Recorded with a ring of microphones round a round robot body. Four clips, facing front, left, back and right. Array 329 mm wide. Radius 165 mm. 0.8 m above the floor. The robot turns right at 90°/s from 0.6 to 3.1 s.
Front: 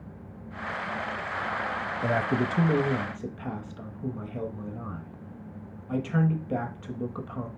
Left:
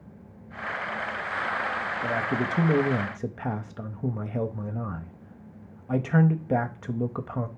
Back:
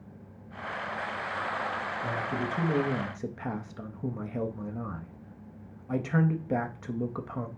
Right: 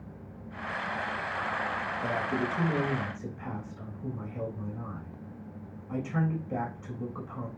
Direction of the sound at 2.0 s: 5° left.